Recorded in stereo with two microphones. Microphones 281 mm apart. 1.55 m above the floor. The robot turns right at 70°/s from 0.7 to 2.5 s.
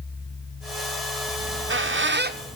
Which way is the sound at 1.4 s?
40° right (ahead or behind).